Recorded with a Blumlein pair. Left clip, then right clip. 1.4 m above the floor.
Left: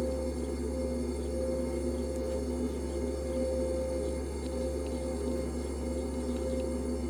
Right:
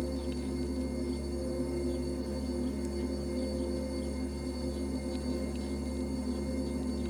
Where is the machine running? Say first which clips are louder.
Left 3 dB; 20° left, 1.2 m.